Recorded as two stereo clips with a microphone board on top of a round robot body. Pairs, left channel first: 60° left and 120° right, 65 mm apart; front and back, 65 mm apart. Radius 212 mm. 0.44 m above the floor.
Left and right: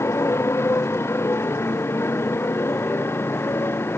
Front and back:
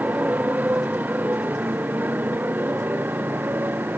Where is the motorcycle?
115° left; by 4.0 s 120° left.